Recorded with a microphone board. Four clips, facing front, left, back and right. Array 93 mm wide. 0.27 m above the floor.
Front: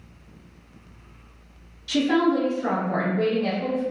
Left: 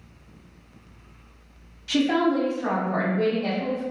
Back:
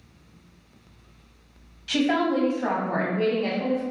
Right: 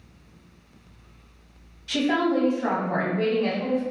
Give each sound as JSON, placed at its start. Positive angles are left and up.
{"t": 1.9, "sound": "a woman speaking", "azimuth_deg": 165, "distance_m": 1.2}